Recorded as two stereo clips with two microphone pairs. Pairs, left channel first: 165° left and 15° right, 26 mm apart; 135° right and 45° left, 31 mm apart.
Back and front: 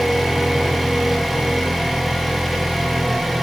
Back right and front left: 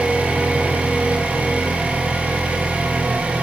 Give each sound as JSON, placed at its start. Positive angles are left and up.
{"t": 0.0, "sound": "an engine running", "azimuth_deg": 70, "distance_m": 2.5}